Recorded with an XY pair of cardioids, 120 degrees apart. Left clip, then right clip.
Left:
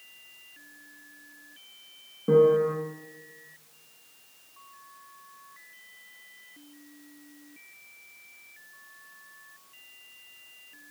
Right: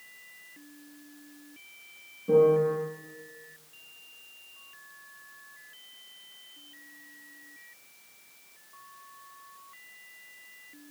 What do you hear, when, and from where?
2.3 s a piano: 65° left, 4.5 m